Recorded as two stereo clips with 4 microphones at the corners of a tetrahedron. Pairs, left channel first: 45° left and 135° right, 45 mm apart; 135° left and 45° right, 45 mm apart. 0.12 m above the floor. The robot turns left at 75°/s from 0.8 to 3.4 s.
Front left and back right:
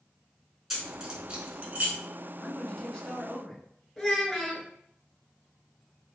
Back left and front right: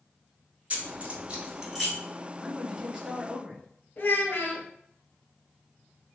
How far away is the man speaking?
About 1.0 m.